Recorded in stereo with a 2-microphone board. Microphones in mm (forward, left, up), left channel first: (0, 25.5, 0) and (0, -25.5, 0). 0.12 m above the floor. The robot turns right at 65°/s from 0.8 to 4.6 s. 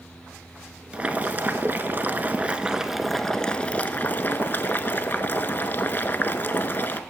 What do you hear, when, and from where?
0.9 s boiling: 140° right, 0.7 m; by 7.0 s 100° left, 0.7 m